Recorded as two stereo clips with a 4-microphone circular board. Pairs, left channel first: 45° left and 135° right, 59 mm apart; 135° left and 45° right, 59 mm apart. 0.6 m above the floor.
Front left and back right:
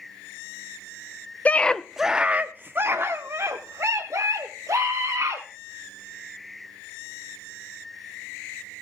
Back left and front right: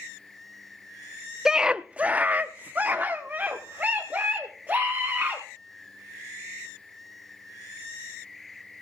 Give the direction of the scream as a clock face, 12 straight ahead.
11 o'clock.